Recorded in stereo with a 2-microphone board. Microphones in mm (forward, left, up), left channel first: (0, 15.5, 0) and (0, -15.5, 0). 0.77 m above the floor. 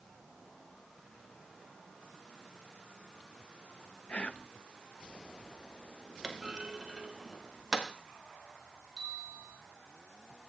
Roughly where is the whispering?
Left.